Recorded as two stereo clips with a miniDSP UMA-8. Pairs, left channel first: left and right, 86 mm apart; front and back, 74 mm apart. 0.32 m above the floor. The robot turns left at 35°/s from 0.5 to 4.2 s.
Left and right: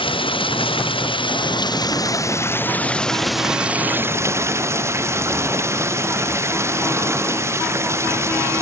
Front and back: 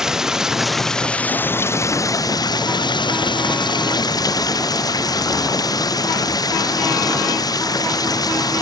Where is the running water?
95° left; by 8.6 s 30° right.